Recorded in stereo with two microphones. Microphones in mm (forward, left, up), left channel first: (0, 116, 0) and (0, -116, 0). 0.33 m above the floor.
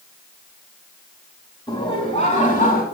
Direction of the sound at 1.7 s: 20° left (ahead or behind).